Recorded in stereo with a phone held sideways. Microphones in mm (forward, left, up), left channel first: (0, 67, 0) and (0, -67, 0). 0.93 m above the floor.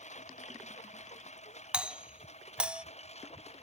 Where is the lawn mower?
60° left (ahead or behind); by 3.6 s 55° left (ahead or behind).